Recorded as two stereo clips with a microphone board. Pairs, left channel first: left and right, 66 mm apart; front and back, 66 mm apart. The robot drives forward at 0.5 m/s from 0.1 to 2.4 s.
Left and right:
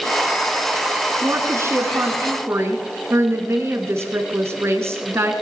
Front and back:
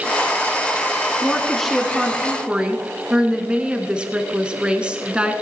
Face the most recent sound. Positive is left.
turn(degrees=-110)